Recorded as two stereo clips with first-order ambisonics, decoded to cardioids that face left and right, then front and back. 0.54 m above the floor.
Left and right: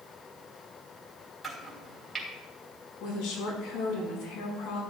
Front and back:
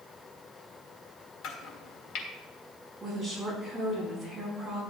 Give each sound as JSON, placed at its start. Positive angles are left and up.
{"t": 1.4, "sound": "chopping", "azimuth_deg": -10, "distance_m": 1.9}
{"t": 3.0, "sound": "a woman speaking", "azimuth_deg": 90, "distance_m": 4.5}